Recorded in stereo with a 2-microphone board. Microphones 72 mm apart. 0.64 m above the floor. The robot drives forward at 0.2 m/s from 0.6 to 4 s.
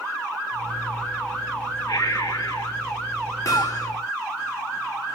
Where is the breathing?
65° left (ahead or behind), 6.5 m.